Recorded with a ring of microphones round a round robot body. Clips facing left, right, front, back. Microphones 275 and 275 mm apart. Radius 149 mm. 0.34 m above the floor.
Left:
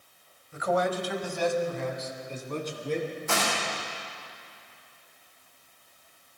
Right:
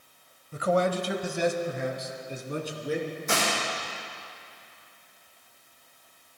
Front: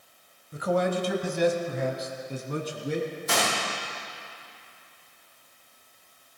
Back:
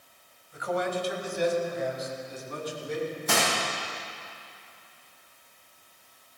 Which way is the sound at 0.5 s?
50° right.